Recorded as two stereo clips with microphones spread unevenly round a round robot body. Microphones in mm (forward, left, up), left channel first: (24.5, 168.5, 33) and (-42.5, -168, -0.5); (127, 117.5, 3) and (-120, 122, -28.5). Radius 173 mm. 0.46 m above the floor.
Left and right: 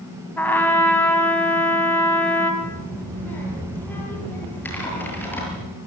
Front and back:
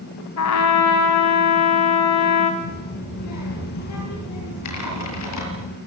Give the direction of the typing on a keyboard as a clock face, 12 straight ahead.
12 o'clock.